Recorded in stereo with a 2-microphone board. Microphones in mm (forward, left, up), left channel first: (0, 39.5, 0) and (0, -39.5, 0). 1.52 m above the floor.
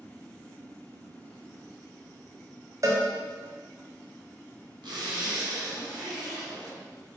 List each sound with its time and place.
2.8 s a cowbell: 45° right (ahead or behind), 0.6 m
4.8 s a zipper: 80° right, 1.1 m